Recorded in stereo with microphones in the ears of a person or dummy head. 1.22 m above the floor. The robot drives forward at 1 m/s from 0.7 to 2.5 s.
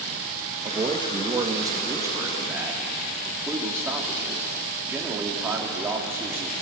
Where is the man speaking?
25° right (ahead or behind), 1.6 m; by 6.5 s 10° right (ahead or behind), 3.5 m.